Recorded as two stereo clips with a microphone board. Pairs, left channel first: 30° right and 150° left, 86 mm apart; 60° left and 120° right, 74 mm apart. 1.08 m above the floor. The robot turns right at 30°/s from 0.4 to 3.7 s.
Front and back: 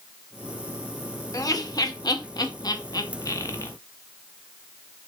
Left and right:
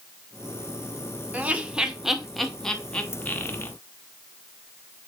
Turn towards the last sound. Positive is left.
turn(degrees=10)